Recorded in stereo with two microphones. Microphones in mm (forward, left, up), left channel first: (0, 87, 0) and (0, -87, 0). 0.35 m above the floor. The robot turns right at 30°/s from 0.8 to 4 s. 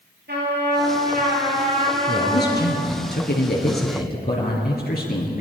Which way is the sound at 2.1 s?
60° left.